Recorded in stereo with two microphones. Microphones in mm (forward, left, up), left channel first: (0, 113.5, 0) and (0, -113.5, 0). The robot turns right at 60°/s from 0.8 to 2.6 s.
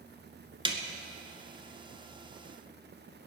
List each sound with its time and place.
0.7 s a snare drum: 20° right (ahead or behind), 1.4 m